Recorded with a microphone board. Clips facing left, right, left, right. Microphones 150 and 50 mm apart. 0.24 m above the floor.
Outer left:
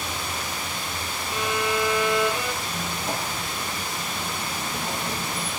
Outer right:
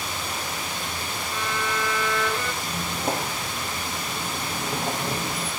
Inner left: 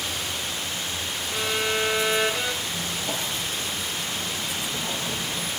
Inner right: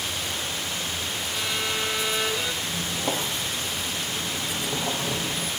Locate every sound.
1.3 s a violin: 15° left (ahead or behind), 2.5 m
2.6 s a squeak: 60° right (ahead or behind), 6 m